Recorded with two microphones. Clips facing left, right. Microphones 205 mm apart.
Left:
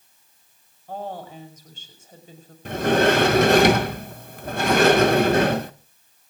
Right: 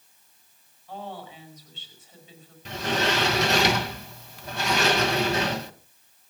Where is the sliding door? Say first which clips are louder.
Left 9 dB; 55° left (ahead or behind), 0.9 m.